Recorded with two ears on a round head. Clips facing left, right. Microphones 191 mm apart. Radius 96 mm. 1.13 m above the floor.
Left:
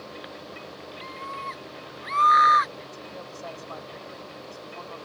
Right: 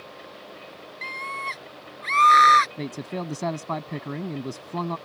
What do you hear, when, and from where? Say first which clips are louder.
1.0 s a scream: right 3 dB; 35° right (ahead or behind); by 2.7 s 40° right (ahead or behind)
2.8 s a man speaking: right 9 dB; 80° right